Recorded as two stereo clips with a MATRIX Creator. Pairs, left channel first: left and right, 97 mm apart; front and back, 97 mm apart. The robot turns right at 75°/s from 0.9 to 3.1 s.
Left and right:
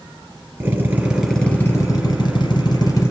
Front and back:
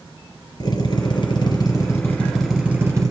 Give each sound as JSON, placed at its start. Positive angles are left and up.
{"t": 0.6, "sound": "a drill", "azimuth_deg": -20, "distance_m": 2.5}